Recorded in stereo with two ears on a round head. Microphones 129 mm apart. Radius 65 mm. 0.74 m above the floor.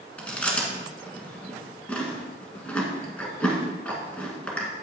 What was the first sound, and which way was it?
Chewing, 10° left (ahead or behind).